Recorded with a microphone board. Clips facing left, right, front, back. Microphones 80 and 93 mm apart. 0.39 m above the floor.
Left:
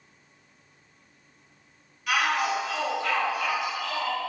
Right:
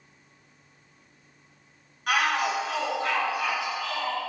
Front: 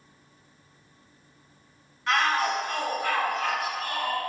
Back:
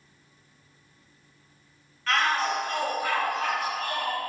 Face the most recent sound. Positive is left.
turn(degrees=165)